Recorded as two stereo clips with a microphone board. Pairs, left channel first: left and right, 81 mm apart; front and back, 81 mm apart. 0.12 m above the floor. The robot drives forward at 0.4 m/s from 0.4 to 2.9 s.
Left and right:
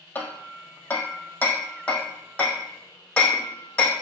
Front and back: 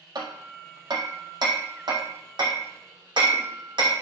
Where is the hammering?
155° left, 1.4 m; by 3.9 s 165° left, 2.5 m.